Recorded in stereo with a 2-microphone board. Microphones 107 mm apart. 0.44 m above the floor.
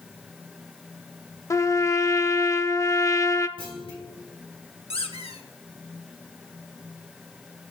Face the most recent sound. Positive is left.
turn(degrees=75)  # may be behind; listen again after turning